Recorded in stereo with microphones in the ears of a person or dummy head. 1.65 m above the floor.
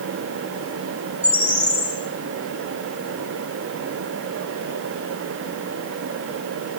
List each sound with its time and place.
1.2 s a bird: 10° right (ahead or behind), 4 m